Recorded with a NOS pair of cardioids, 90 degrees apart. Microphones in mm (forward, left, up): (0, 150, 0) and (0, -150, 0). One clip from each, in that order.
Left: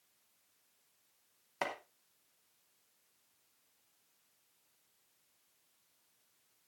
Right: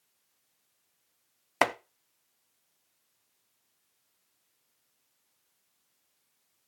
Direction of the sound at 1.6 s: 70° right.